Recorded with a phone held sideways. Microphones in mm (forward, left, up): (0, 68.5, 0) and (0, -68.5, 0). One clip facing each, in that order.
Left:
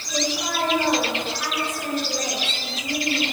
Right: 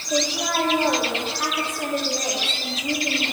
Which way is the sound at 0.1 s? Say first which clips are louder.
Right 2 dB; 70° right (ahead or behind).